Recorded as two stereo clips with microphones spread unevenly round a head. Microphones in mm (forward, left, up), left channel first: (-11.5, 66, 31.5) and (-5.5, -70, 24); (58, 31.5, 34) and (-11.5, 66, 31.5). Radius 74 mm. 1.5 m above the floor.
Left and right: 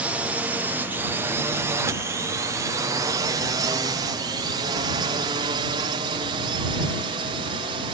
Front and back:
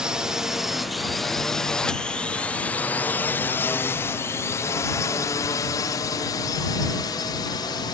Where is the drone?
145° right; by 7.9 s 45° right.